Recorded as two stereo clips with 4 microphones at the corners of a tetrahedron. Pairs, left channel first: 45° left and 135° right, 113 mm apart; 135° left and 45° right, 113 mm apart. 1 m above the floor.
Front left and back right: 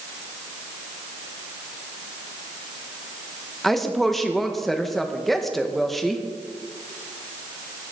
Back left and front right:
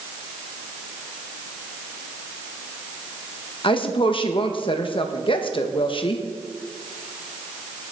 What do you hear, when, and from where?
3.6 s a woman speaking: 135° left, 1.2 m